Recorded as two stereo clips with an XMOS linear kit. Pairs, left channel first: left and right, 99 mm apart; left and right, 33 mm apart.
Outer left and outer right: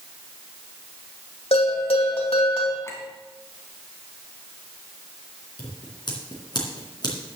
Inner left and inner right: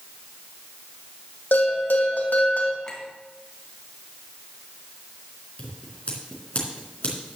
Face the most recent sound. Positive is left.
turn(degrees=45)  # may be behind; listen again after turning